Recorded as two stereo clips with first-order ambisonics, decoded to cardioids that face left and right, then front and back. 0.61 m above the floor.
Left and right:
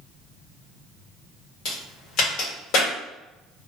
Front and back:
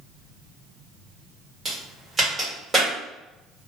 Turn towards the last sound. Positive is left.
turn(degrees=105)